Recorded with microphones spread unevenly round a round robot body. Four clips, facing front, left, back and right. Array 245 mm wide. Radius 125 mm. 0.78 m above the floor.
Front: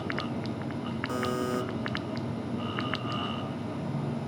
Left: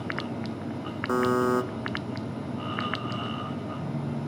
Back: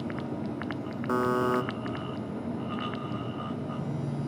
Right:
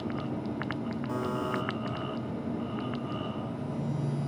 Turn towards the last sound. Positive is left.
turn(degrees=100)